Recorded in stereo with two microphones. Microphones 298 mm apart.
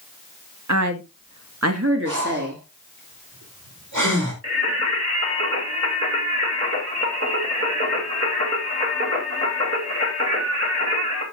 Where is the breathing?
85° right, 3 m.